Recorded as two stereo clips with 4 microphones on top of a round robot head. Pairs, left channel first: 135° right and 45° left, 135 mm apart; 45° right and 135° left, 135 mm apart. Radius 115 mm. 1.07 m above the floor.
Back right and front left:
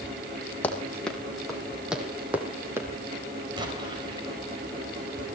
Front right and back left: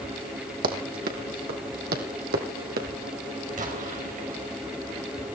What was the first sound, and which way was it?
Running footsteps, 145° left.